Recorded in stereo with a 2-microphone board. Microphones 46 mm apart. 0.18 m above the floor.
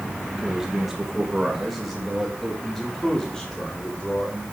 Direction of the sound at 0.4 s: 15° right (ahead or behind).